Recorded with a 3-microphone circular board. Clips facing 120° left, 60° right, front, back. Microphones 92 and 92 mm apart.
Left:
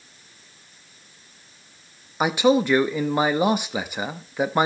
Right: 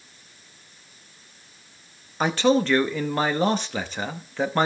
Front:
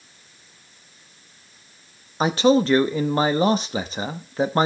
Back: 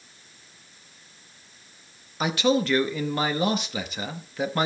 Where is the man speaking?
45° left, 0.8 m.